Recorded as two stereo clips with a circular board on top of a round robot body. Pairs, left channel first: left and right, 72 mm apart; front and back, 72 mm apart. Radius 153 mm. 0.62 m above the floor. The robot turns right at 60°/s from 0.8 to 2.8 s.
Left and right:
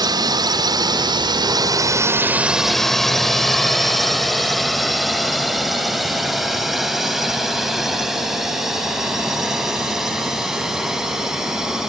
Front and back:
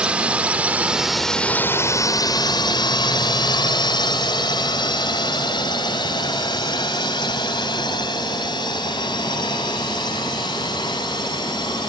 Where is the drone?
105° right; by 11.9 s 5° right.